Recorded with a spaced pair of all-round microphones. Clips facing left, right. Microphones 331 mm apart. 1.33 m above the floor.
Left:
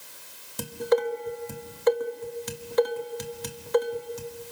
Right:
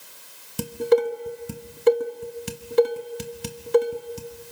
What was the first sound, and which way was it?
Dishes clattering, 35° right (ahead or behind).